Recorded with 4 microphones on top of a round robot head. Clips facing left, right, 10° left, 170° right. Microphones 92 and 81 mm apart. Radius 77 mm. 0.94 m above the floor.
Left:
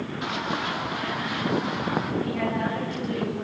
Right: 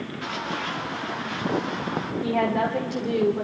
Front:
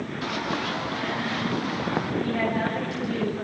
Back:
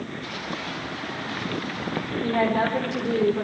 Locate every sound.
0.2 s running footsteps: 20° left, 7.5 m; by 2.1 s 10° left, 8.5 m
2.2 s a woman speaking: 125° right, 4 m